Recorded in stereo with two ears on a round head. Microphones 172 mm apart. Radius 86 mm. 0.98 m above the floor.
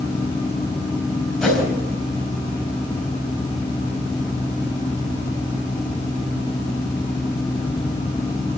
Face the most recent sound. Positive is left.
turn(degrees=0)  # may be behind; listen again after turning